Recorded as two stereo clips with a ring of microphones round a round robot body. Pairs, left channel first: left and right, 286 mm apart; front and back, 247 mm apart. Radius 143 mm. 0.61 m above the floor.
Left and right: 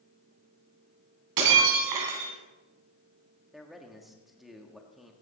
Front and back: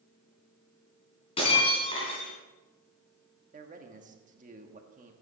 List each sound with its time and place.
1.4 s breaking glass: 75° right, 2.5 m
3.5 s a man speaking: straight behind, 1.3 m